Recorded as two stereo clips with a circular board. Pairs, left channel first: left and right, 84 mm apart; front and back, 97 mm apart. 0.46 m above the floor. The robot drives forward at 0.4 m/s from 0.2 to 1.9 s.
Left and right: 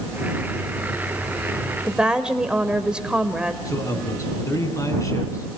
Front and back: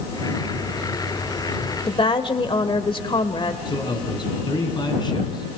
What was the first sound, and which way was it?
A woman speaking, 10° right.